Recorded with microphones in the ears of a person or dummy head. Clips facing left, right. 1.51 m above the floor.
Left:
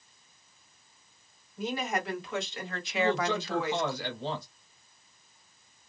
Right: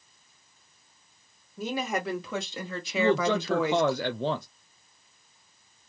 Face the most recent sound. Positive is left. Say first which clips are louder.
# right 4 dB
turn(degrees=-50)  # may be behind; listen again after turning